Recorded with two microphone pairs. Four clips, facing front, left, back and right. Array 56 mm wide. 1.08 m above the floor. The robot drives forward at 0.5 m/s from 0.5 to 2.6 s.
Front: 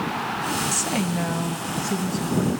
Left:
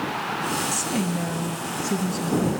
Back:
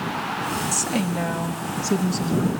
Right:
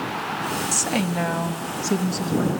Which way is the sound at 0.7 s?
75° right.